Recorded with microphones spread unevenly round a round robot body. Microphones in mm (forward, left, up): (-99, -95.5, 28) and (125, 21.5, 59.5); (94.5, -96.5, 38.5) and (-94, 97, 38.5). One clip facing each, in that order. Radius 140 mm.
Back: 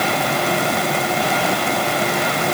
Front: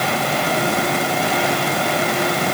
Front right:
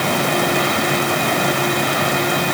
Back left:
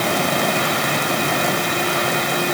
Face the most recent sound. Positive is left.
No sound to turn to.